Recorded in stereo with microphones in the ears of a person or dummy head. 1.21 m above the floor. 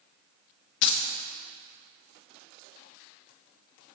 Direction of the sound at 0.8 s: 65° left (ahead or behind).